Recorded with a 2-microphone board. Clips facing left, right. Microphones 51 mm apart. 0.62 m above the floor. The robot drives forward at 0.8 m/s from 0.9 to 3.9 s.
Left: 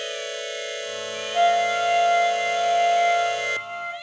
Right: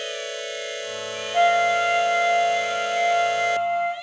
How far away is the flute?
About 0.9 m.